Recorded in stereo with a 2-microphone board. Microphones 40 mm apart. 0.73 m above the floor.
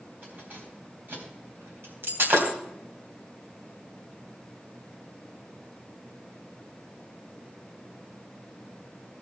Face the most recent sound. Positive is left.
turn(degrees=-70)  # may be behind; listen again after turning